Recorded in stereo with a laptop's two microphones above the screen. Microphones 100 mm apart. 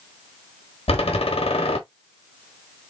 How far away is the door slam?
About 1.4 m.